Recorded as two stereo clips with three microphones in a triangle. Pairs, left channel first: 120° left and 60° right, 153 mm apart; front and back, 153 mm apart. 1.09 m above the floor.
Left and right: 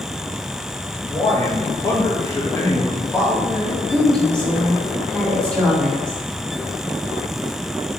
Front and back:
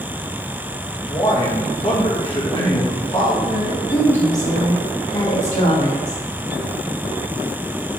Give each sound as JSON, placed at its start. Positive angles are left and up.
{"t": 1.1, "sound": "a man speaking", "azimuth_deg": 50, "distance_m": 1.1}
{"t": 3.5, "sound": "a woman speaking", "azimuth_deg": 40, "distance_m": 1.7}